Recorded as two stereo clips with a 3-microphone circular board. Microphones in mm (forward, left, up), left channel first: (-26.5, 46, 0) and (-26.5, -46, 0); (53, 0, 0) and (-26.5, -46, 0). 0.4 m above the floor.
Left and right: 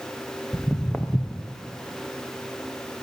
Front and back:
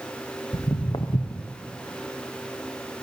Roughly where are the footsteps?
Ahead.